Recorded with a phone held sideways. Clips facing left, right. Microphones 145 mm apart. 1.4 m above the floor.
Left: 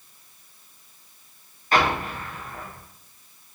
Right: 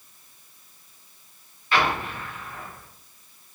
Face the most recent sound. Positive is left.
turn(degrees=45)  # may be behind; listen again after turning